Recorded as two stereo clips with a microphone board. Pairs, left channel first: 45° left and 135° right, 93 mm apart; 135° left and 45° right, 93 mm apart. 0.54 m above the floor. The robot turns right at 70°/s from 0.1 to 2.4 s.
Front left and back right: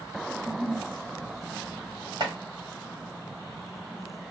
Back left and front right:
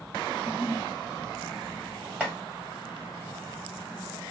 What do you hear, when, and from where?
0.3 s a giggle: 120° right, 1.4 m; by 0.9 s 80° right, 1.4 m
2.2 s chopping: 120° right, 1.3 m; by 2.4 s 110° right, 1.3 m